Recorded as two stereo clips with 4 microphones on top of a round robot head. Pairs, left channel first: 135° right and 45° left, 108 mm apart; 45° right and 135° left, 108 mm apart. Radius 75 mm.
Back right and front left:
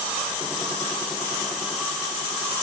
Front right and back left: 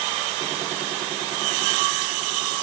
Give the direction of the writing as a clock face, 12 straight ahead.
No writing in this recording.